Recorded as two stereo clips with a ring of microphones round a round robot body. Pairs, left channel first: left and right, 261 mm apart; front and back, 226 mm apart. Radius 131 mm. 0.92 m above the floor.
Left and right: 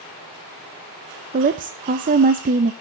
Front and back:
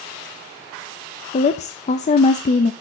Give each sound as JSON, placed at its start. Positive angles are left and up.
{"t": 1.3, "sound": "a woman speaking", "azimuth_deg": -45, "distance_m": 0.5}